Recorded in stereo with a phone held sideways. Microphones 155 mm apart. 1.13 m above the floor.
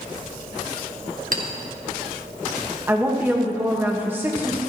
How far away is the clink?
About 1.3 m.